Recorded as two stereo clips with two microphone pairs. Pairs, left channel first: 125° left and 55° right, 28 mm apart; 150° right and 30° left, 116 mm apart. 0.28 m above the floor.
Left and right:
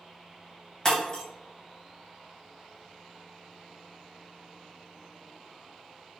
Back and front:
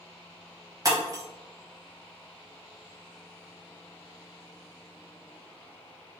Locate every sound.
0.8 s breaking glass: 75° left, 0.9 m